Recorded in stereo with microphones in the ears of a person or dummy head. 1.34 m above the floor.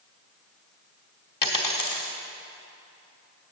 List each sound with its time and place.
1.4 s a dropped coin: 25° left (ahead or behind), 1.0 m